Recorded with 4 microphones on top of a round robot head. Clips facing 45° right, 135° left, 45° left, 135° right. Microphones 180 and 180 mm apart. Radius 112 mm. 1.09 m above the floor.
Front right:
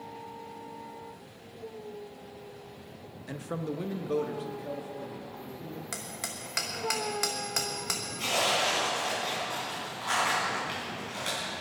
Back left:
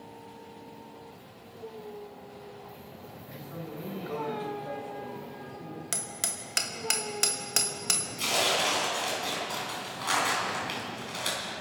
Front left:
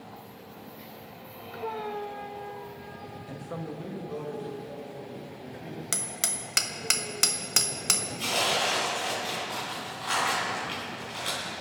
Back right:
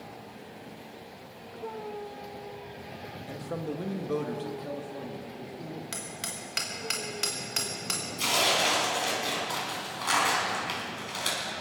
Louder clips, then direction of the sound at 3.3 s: Front right 7 dB, back right 3 dB; 45° right.